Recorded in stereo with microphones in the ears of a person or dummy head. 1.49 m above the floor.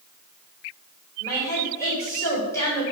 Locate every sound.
1.2 s a woman speaking: 20° left (ahead or behind), 2 m